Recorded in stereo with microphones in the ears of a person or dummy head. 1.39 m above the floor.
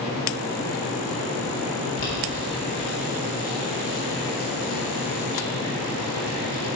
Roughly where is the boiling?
Left.